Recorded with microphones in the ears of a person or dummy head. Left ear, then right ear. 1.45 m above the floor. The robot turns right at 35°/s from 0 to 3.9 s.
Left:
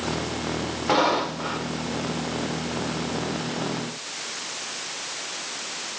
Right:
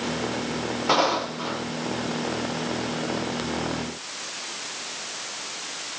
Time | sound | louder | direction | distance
0.9 | footsteps | left 1 dB | 30° right (ahead or behind) | 4 m